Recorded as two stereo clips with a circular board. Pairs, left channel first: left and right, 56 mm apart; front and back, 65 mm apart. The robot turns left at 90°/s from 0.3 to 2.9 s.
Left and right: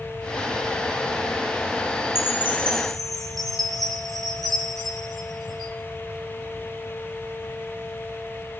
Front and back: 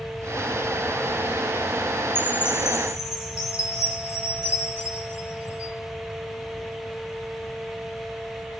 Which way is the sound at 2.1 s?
70° left.